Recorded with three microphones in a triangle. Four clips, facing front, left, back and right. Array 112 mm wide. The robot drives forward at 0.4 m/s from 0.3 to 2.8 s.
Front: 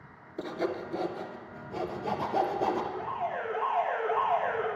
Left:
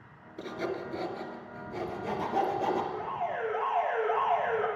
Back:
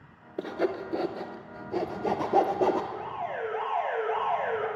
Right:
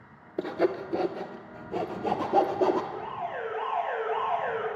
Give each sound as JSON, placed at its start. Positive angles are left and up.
{"t": 0.4, "sound": "sawing", "azimuth_deg": -110, "distance_m": 0.9}
{"t": 2.9, "sound": "an alarm", "azimuth_deg": 155, "distance_m": 4.0}